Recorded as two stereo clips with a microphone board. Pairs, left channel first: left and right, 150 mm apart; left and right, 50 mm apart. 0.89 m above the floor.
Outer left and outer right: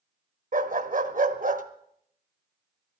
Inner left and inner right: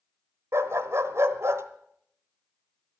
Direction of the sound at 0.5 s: 60° right (ahead or behind).